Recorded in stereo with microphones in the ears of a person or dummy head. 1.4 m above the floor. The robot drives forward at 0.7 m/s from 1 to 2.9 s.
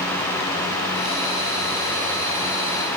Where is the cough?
No cough in this recording.